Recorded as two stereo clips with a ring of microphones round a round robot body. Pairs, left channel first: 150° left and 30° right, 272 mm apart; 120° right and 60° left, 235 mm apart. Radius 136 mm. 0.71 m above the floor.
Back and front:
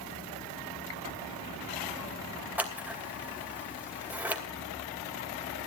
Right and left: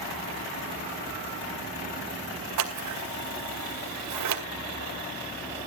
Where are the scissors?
55° left, 2.5 m.